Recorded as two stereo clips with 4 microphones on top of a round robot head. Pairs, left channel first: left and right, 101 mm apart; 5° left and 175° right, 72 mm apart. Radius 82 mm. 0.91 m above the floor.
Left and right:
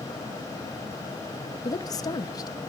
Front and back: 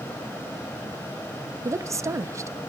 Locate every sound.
1.6 s a woman speaking: 140° left, 1.1 m